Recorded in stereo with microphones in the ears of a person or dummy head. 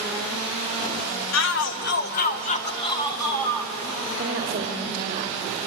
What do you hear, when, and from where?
1.3 s a shout: 75° left (ahead or behind), 1.6 m; by 3.7 s 10° left (ahead or behind), 2.5 m
4.2 s a woman speaking: 40° right (ahead or behind), 2.5 m